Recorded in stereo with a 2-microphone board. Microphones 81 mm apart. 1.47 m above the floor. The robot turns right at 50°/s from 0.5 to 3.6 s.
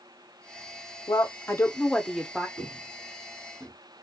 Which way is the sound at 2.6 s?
25° right (ahead or behind).